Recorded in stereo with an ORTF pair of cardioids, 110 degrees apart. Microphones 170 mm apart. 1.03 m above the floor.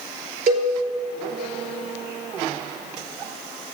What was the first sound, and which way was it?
A cowbell, 60° right.